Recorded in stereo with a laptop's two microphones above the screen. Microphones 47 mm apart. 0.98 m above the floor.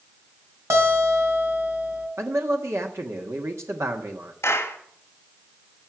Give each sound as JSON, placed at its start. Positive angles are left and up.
{"t": 0.7, "sound": "a guitar", "side_deg": -85, "distance_m": 3.5}
{"t": 2.2, "sound": "a man speaking", "side_deg": -80, "distance_m": 1.4}
{"t": 4.4, "sound": "a clap", "side_deg": 70, "distance_m": 2.0}